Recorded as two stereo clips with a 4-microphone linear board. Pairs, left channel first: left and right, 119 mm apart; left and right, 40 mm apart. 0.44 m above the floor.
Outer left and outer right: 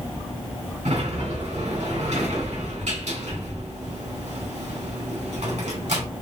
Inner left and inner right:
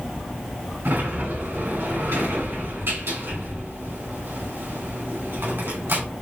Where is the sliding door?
75° right (ahead or behind), 2.5 m.